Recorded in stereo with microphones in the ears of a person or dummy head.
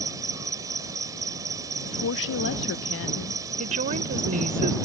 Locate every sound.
0.0 s an insect: 20° right (ahead or behind)
1.9 s a woman speaking: 75° left (ahead or behind)
3.6 s a woman speaking: 45° right (ahead or behind)